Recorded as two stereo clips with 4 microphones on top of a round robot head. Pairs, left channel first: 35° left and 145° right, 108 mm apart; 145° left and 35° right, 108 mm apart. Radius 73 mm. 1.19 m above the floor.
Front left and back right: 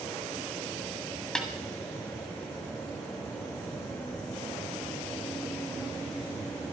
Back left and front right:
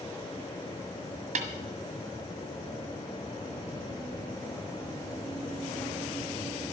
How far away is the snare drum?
About 1.7 m.